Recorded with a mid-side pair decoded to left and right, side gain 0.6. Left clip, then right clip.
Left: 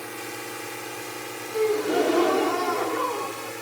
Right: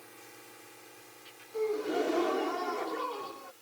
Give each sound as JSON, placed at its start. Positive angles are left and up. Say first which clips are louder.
{"t": 0.0, "sound": "a drone", "louder": "left 17 dB", "azimuth_deg": 65}
{"t": 1.5, "sound": "a gasp", "louder": "left 8 dB", "azimuth_deg": 40}